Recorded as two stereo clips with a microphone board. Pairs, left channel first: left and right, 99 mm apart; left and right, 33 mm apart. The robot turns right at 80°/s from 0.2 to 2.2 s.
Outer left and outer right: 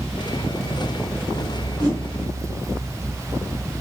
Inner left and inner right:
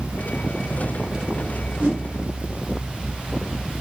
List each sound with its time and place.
1.8 s a whoosh: 45° right (ahead or behind), 1.1 m; by 2.0 s 65° right (ahead or behind), 1.1 m